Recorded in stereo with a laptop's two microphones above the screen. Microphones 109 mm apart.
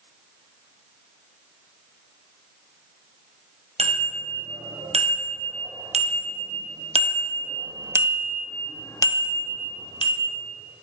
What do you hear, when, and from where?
3.8 s a bicycle bell: 90° right, 4.5 m; by 10.4 s 55° left (ahead or behind), 2.5 m